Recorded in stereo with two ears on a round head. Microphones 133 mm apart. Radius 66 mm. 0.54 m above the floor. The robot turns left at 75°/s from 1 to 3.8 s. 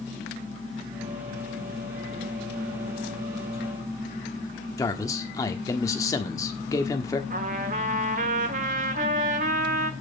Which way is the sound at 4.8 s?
25° left (ahead or behind).